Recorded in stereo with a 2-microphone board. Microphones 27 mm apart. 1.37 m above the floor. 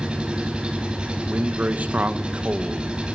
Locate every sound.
0.0 s an engine running: 35° right (ahead or behind), 6.5 m
1.3 s a man speaking: 70° right (ahead or behind), 1.8 m